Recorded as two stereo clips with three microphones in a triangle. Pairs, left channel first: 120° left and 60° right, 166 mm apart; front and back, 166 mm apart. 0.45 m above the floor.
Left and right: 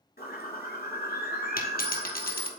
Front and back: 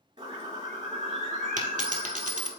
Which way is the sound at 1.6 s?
140° left.